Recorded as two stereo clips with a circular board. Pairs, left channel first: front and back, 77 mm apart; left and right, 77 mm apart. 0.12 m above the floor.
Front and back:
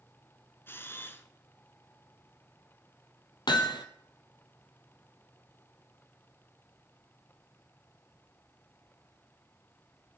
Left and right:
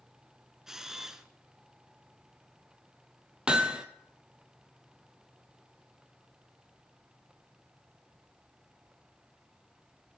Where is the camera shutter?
10° right, 1.0 m.